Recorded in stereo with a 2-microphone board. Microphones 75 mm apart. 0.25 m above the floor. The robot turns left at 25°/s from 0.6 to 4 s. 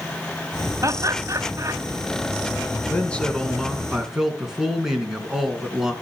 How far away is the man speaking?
About 3 m.